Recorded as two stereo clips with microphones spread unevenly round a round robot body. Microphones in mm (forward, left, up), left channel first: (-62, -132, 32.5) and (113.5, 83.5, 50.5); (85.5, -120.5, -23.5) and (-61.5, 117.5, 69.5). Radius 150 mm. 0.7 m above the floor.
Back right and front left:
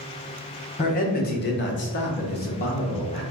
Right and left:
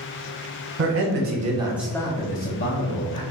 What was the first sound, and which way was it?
A man speaking, 170° left.